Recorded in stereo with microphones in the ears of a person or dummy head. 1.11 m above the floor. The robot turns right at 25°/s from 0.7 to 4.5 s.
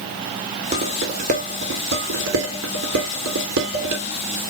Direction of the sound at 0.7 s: 35° right (ahead or behind).